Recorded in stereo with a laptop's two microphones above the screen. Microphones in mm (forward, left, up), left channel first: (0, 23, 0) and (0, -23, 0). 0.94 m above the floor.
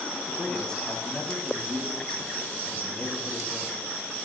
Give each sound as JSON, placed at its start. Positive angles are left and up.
{"t": 0.3, "sound": "a man speaking", "side_deg": 15, "distance_m": 6.0}